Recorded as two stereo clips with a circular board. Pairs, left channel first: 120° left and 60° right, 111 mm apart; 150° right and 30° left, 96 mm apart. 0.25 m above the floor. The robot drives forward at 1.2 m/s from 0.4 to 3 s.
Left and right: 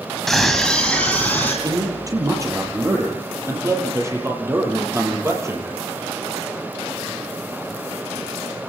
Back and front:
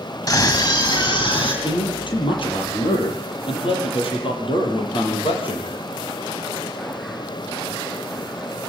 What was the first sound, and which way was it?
A scream, 155° right.